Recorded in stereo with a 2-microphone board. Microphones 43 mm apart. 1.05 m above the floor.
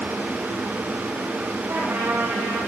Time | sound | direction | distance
1.7 | a trumpet | 70° right (ahead or behind) | 9.5 m